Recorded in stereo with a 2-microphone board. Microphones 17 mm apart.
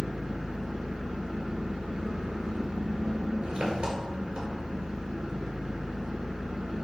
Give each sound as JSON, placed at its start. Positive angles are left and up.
{"t": 0.0, "sound": "an engine running", "side_deg": -70, "distance_m": 1.3}